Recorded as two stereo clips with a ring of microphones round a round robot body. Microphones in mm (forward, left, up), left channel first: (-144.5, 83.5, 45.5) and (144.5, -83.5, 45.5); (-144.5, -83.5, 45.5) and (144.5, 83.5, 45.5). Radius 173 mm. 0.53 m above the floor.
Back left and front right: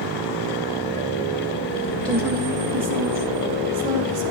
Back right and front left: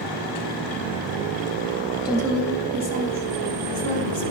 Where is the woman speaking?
80° right, 1.0 m; by 4.2 s 5° right, 1.7 m.